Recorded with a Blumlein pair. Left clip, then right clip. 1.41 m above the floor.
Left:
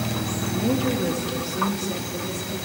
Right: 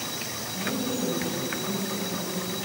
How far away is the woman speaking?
About 1.6 m.